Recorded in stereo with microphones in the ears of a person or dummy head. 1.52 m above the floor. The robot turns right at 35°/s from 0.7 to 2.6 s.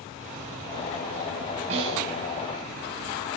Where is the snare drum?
35° right (ahead or behind), 5 m; by 2.0 s 25° right (ahead or behind), 5 m.